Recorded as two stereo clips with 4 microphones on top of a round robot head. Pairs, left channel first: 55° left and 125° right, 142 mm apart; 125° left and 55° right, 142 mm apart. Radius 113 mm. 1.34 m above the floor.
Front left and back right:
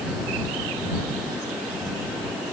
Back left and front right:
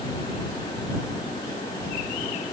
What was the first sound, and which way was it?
Only background noise.